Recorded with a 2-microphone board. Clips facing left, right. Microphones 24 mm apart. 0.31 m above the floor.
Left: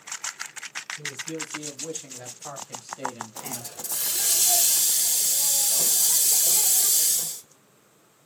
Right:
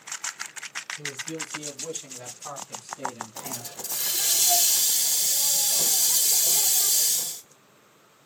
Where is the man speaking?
5° right (ahead or behind), 2.5 m; by 3.7 s 45° left (ahead or behind), 1.8 m.